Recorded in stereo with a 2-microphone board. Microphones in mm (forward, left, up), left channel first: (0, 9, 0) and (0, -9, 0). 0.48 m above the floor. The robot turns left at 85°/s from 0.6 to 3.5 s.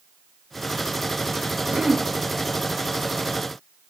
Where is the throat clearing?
135° right, 0.6 m; by 2.1 s 165° right, 0.6 m.